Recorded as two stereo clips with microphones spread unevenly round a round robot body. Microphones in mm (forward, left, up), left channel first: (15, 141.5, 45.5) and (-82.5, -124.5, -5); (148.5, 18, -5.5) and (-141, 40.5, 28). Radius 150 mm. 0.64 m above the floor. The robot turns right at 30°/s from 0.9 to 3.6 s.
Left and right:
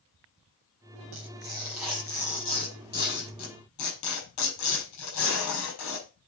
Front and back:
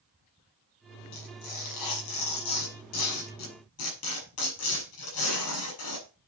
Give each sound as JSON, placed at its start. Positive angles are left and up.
{"t": 1.1, "sound": "tearing paper", "azimuth_deg": -45, "distance_m": 5.5}